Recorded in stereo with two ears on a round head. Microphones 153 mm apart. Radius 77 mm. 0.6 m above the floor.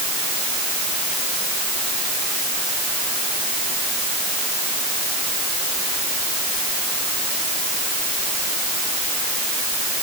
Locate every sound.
Only background noise.